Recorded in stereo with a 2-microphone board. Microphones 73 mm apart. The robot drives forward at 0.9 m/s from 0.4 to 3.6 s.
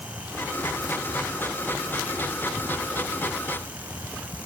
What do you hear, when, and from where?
Only background noise.